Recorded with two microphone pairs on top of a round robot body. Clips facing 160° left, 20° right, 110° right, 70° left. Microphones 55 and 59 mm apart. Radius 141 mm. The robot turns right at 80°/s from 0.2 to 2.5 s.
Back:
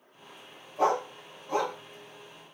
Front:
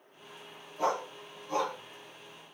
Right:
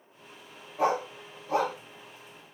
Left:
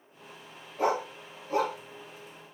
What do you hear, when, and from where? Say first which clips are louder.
0.8 s a dog barking: back 5 dB, right 1 dB; 170° left, 1.8 m; by 1.8 s 115° right, 1.8 m